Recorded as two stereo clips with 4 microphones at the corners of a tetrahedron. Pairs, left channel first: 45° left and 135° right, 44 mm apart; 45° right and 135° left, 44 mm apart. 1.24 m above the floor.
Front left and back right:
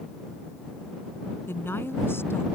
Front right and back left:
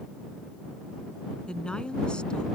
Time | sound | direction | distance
1.5 | a woman speaking | 25° left | ?